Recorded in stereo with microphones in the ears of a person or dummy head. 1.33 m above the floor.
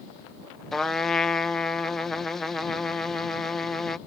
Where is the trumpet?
5° right (ahead or behind).